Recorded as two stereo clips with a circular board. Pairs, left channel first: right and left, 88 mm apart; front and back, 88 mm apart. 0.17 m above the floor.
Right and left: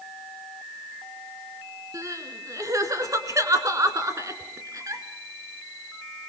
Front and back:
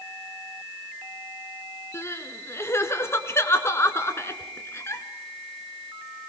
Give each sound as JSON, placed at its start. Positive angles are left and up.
{"t": 1.9, "sound": "crying", "azimuth_deg": 50, "distance_m": 1.7}